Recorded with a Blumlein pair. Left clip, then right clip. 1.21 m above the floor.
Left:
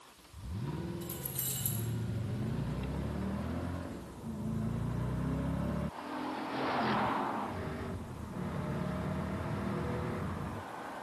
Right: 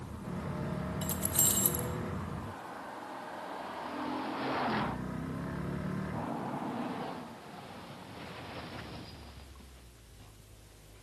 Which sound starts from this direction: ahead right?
Keys jangling, at 1.0 s.